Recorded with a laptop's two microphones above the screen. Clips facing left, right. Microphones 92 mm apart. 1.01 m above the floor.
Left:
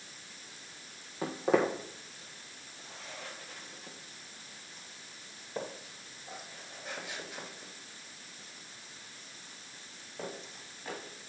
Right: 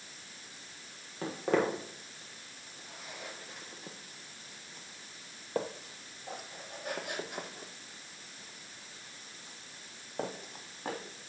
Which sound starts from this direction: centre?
Footsteps, at 1.2 s.